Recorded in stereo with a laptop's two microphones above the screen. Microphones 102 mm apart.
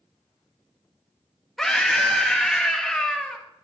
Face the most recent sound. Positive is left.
turn(degrees=5)  # may be behind; listen again after turning